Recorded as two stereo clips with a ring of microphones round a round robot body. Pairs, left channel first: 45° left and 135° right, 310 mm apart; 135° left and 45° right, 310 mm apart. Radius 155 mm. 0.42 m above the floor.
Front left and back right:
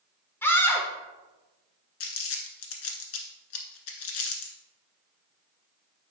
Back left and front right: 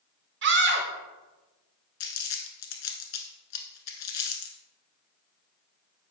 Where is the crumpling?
95° left, 1.4 m.